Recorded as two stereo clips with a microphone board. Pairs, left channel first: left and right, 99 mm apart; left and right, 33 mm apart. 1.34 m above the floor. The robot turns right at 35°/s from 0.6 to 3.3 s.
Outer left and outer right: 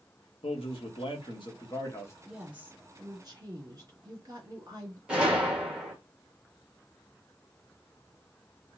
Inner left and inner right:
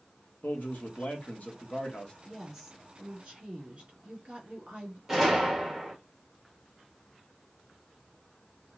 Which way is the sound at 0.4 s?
100° left.